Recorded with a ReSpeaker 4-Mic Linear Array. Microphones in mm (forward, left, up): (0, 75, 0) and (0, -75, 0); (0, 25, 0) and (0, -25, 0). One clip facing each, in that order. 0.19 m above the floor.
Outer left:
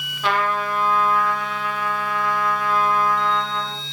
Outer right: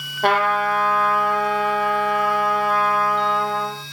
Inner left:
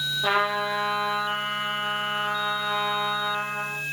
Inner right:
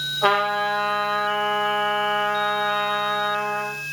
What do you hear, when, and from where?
0.2 s a trumpet: 55° right (ahead or behind), 5.5 m